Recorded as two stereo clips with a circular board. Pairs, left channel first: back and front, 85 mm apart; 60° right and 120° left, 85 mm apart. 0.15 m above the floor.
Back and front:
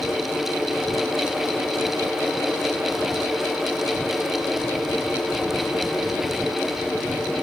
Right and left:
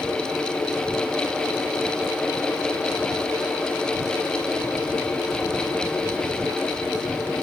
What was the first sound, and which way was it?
Only background noise.